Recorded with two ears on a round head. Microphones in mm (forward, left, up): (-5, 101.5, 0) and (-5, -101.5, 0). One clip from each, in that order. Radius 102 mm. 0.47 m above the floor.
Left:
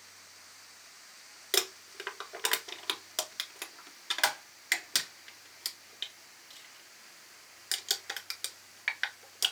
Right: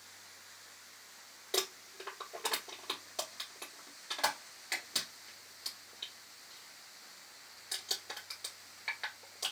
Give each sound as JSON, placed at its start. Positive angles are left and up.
{"t": 1.5, "sound": "crumpling", "side_deg": 55, "distance_m": 1.1}